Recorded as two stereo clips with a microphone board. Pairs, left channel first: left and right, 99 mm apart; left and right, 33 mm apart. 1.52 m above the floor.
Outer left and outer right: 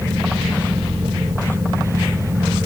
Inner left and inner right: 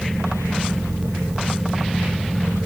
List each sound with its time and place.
Only background noise.